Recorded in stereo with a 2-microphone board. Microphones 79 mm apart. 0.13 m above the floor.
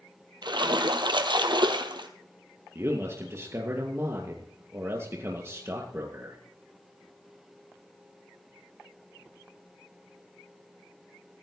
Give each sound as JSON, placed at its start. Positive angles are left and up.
{"t": 0.4, "sound": "a splash", "side_deg": -75, "distance_m": 1.2}
{"t": 2.8, "sound": "a man speaking", "side_deg": -35, "distance_m": 2.5}